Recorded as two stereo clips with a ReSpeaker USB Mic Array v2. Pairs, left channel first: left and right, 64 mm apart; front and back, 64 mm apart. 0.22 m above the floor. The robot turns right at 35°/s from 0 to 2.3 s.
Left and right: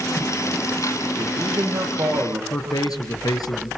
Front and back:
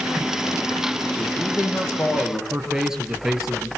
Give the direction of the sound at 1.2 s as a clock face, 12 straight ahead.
3 o'clock.